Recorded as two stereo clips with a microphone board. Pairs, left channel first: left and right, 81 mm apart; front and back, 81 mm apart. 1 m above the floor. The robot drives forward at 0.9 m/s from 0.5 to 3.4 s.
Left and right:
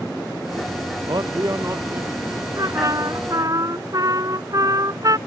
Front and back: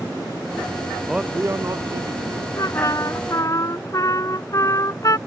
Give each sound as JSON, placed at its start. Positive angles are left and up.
{"t": 1.1, "sound": "a man speaking", "azimuth_deg": -90}
{"t": 2.6, "sound": "a trumpet", "azimuth_deg": -45}